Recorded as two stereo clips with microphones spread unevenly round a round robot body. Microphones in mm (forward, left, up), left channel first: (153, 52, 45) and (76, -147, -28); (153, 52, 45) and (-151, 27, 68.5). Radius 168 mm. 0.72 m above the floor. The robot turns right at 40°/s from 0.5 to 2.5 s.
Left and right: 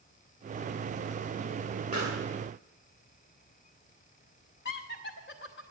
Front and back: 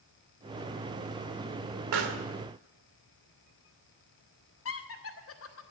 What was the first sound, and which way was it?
A pop, straight behind.